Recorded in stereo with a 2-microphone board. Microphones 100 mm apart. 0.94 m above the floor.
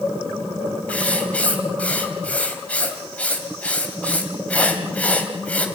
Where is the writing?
15° left (ahead or behind), 2.5 m.